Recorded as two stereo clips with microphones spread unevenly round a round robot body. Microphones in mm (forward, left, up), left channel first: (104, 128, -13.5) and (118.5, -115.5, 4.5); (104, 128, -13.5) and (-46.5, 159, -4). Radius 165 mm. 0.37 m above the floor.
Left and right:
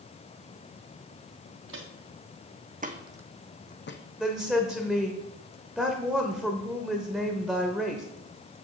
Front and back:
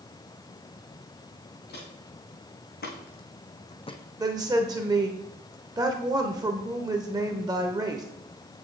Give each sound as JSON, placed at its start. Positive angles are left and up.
{"t": 1.7, "sound": "footsteps", "azimuth_deg": -55, "distance_m": 3.0}
{"t": 4.2, "sound": "a woman speaking", "azimuth_deg": 180, "distance_m": 0.8}